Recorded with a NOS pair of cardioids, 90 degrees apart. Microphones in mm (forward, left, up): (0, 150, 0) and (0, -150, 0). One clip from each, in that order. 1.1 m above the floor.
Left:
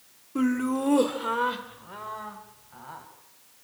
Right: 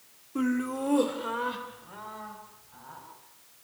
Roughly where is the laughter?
Ahead.